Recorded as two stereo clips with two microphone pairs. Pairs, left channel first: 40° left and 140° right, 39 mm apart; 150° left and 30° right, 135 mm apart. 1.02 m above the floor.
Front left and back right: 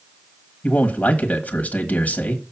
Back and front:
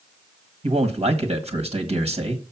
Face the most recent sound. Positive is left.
turn(degrees=-5)